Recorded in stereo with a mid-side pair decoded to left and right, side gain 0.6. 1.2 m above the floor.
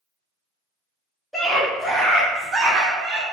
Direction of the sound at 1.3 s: 5° left.